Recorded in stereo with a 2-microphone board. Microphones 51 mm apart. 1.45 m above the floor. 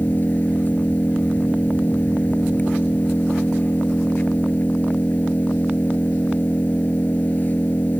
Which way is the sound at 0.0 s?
35° left (ahead or behind).